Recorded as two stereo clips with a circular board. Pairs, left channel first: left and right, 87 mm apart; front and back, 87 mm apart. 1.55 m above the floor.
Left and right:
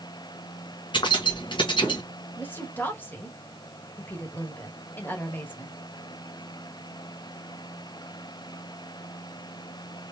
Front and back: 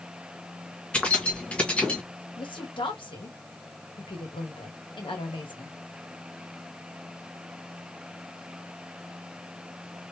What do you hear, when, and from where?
0.9 s keys jangling: 75° left, 1.2 m
2.4 s a woman speaking: 25° left, 1.4 m